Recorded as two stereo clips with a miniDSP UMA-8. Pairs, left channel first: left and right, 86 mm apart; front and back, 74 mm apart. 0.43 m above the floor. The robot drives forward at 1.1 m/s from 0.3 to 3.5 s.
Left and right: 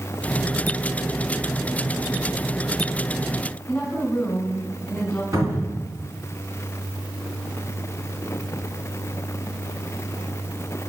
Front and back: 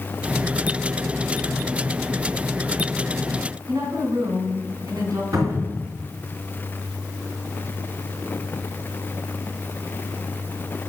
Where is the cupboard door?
145° right, 3 m.